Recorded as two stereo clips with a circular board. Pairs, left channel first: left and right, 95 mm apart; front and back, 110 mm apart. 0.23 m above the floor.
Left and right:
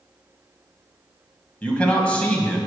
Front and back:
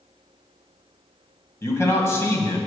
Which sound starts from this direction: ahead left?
A man speaking, at 1.6 s.